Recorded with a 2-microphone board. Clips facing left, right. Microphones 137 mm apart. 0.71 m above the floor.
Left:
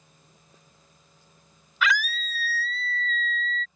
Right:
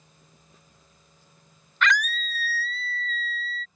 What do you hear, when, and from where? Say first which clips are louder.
1.8 s a scream: right 1 dB; 5° left (ahead or behind); by 3.6 s 5° right (ahead or behind)